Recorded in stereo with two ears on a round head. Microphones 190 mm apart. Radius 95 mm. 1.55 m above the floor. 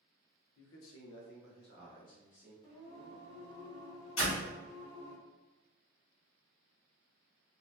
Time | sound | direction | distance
0.6 | a man speaking | 65° left (ahead or behind) | 0.5 m
2.6 | singing | 20° left (ahead or behind) | 0.6 m
4.2 | a door slam | 65° left (ahead or behind) | 1.6 m